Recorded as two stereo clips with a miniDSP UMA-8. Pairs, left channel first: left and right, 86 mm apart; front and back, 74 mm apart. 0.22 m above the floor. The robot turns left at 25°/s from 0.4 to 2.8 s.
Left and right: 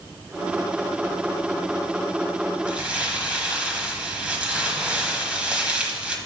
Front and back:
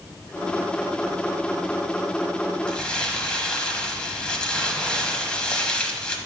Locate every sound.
2.7 s crumpling: 45° right, 1.1 m; by 6.2 s 50° right, 1.1 m